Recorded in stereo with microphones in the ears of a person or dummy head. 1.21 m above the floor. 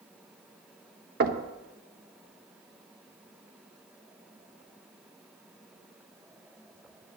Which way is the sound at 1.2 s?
50° right (ahead or behind).